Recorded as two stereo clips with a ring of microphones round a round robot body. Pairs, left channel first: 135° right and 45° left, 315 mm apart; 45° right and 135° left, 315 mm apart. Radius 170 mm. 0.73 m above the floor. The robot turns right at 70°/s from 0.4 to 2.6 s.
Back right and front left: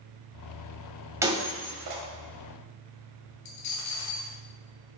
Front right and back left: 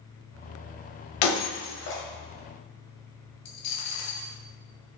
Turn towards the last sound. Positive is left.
turn(degrees=-90)